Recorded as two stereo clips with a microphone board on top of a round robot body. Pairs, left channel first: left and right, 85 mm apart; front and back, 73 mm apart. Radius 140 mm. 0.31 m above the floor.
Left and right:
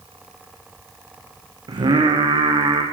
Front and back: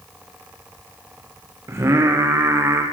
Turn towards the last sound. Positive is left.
turn(degrees=-125)